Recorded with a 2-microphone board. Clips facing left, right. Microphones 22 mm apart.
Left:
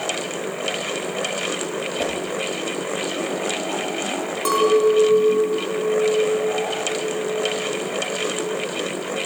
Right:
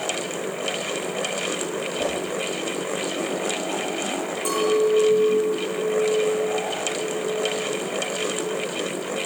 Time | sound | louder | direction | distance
2.0 | a whoosh | left 1 dB | 75° left (ahead or behind) | 8 m
4.5 | a clink | left 4 dB | 65° left (ahead or behind) | 5 m